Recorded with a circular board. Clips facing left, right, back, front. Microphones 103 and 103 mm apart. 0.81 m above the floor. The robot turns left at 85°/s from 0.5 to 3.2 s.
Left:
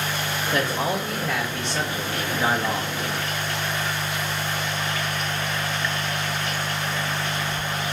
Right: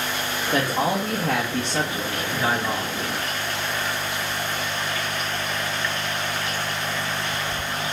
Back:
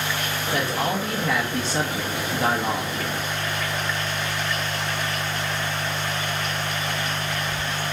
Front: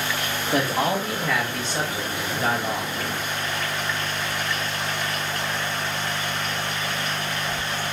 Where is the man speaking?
45° right, 0.7 m; by 2.9 s 110° left, 0.7 m.